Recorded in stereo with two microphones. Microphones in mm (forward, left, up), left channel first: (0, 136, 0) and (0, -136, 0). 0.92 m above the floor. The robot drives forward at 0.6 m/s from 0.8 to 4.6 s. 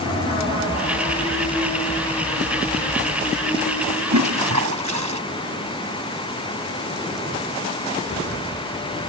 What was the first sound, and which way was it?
A toilet flushing, 80° right.